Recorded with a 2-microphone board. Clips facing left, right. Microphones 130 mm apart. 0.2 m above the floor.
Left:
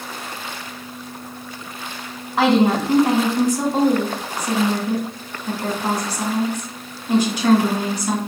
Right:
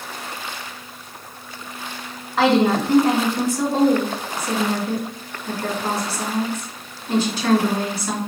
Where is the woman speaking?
15° left (ahead or behind), 1.8 m.